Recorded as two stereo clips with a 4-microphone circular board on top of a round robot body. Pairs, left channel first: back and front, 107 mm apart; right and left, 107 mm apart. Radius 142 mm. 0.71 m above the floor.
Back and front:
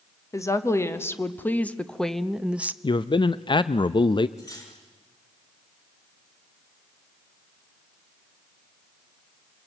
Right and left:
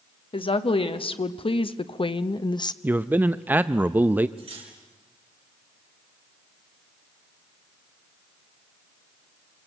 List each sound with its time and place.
0.3 s a woman speaking: 120° right, 1.6 m; by 2.7 s 65° right, 0.8 m
2.8 s a man speaking: 160° left, 0.6 m
4.4 s cutlery clinking: 120° left, 6 m